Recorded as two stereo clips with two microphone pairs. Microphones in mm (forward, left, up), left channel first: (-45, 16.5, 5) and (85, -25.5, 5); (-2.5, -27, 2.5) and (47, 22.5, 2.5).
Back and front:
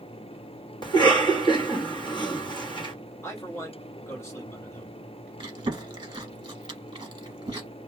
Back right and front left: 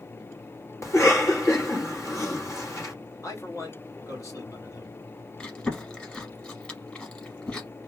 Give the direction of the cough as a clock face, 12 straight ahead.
5 o'clock.